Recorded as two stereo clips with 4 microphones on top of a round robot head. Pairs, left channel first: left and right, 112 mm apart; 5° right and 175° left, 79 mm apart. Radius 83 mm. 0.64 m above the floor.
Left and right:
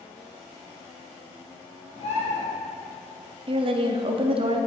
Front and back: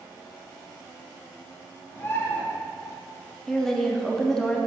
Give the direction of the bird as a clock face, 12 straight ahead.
10 o'clock.